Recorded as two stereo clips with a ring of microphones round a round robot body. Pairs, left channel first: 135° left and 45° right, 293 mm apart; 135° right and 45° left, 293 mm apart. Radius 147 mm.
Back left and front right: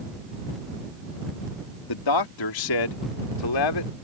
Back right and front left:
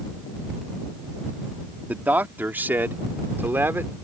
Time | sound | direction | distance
1.9 | a man speaking | 130° left | ?